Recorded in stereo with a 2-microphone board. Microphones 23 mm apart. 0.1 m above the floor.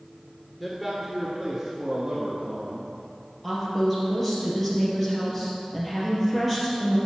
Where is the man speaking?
Centre (ahead or behind), 1.3 m; by 2.9 s 45° right (ahead or behind), 1.5 m.